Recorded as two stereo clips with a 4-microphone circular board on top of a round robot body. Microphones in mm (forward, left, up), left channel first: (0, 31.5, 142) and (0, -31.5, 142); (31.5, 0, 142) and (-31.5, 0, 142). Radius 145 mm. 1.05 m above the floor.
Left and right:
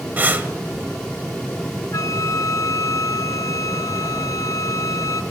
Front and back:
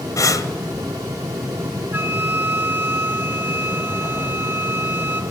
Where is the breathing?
30° right, 2 m.